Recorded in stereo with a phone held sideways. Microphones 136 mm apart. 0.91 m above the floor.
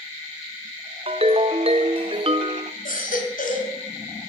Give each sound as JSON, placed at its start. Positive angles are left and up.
{"t": 1.1, "sound": "a ringtone", "side_deg": -45, "distance_m": 0.7}
{"t": 2.9, "sound": "a baby crying", "side_deg": 80, "distance_m": 2.0}